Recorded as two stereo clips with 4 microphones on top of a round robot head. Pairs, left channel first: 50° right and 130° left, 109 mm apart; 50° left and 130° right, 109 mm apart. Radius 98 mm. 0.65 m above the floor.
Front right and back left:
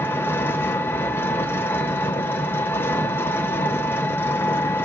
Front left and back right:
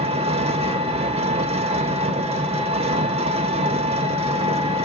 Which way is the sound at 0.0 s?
120° right.